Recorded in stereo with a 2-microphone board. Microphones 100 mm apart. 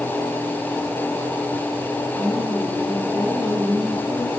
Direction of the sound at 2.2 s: 20° right (ahead or behind).